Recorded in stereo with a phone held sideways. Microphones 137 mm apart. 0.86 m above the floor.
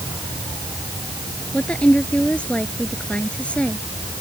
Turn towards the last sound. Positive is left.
turn(degrees=10)  # may be behind; listen again after turning